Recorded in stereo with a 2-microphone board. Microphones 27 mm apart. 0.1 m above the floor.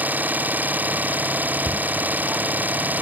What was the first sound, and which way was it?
An engine running, 85° right.